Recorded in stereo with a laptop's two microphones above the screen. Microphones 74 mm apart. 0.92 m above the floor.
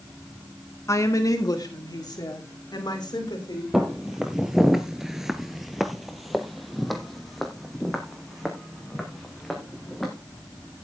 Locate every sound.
0.9 s a woman speaking: 40° left (ahead or behind), 1.4 m; by 3.6 s 70° left (ahead or behind), 4 m
3.7 s footsteps: 5° right (ahead or behind), 1.6 m; by 10.1 s centre (ahead or behind), 5 m